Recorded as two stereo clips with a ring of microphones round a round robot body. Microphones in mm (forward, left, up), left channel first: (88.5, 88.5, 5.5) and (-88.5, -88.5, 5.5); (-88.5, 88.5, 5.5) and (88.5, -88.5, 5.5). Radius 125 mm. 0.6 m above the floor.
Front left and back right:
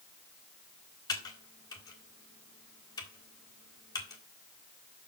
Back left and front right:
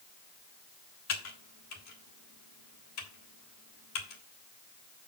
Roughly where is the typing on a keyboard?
Behind left.